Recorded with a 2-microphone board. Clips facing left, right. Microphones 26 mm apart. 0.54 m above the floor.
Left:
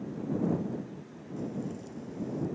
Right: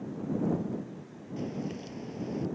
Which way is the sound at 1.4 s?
60° right (ahead or behind).